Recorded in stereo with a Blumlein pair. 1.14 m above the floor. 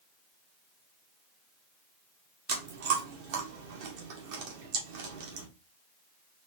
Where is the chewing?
50° right, 1.4 m.